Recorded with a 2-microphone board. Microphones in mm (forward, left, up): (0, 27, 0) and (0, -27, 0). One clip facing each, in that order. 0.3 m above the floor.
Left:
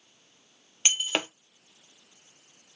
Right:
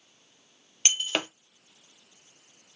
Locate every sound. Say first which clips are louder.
0.8 s breaking glass: even; 5° left (ahead or behind), 0.6 m